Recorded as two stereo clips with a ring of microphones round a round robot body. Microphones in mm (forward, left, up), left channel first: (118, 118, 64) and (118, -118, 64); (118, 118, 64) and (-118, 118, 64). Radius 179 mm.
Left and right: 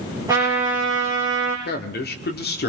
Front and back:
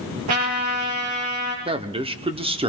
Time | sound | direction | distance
0.3 | a trumpet | 170° right | 4.5 m
1.6 | a man speaking | 120° left | 1.2 m